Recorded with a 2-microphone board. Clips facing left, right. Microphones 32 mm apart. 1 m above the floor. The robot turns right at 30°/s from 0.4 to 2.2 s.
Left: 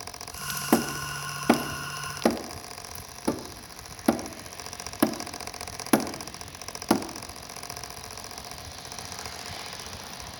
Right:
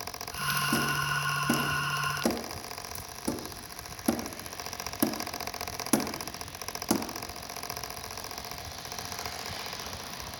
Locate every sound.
0.7 s hammering: 70° left (ahead or behind), 0.9 m; by 7.1 s 25° left (ahead or behind), 0.9 m